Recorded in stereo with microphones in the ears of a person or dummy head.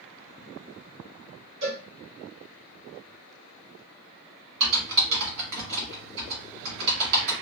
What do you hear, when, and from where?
1.6 s a cowbell: 65° right (ahead or behind), 1.7 m
4.6 s typing on a keyboard: 75° right (ahead or behind), 1.3 m